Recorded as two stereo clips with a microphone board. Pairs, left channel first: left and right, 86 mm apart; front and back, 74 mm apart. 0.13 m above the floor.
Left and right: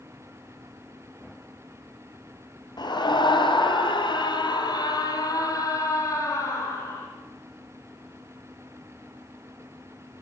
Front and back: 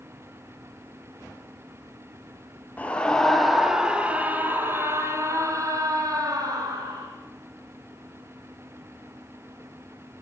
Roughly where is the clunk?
I don't hear a clunk.